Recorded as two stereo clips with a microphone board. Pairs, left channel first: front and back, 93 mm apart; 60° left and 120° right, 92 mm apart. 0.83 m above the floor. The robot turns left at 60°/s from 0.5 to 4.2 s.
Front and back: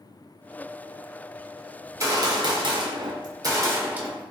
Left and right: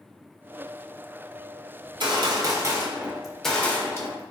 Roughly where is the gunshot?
Behind right.